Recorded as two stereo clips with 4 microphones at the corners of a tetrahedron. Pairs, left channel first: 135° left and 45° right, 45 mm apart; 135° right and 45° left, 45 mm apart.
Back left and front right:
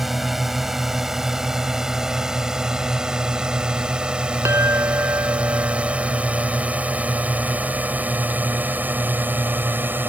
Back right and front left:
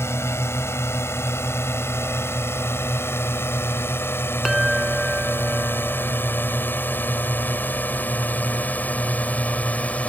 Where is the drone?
130° right; by 10.1 s 80° right.